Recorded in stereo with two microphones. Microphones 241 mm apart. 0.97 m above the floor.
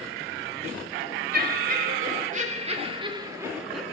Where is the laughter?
40° right (ahead or behind), 4.5 m; by 3.8 s centre (ahead or behind), 1.8 m.